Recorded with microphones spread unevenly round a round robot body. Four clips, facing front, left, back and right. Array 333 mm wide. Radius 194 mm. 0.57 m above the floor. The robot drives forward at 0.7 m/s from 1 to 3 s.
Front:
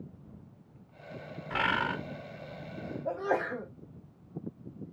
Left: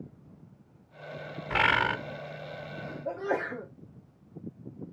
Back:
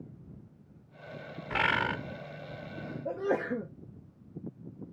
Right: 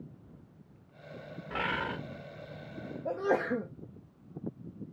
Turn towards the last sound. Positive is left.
turn(degrees=-150)